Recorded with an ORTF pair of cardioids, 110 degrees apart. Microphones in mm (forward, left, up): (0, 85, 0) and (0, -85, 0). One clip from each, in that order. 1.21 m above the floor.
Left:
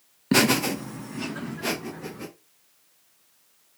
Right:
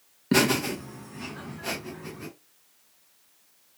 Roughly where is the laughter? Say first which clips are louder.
Left 2 dB; ahead.